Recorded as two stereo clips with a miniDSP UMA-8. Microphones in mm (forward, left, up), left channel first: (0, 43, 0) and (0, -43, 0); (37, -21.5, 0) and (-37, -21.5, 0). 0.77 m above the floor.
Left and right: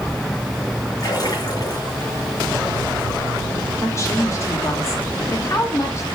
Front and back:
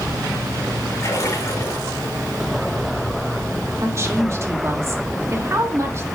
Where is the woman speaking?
140° left, 1.5 m.